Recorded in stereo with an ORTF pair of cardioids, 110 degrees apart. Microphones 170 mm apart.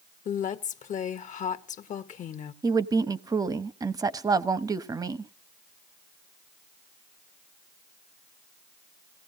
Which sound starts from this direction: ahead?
A woman speaking, at 2.6 s.